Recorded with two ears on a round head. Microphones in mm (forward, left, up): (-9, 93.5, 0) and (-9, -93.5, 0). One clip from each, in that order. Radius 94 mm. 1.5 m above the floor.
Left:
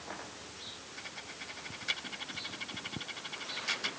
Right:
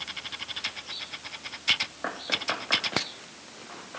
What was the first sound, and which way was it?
Only background noise.